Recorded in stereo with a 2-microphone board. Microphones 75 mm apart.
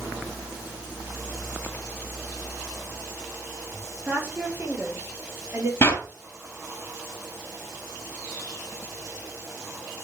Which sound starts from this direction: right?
A woman speaking, at 4.0 s.